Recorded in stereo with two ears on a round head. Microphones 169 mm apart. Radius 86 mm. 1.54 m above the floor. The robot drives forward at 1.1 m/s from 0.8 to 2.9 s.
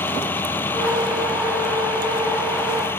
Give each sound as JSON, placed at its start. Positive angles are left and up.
{"t": 0.0, "sound": "a vehicle", "side_deg": 10}